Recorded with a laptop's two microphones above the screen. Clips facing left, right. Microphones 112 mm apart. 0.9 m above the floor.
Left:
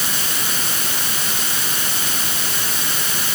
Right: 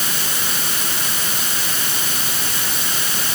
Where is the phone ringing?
No phone ringing in this recording.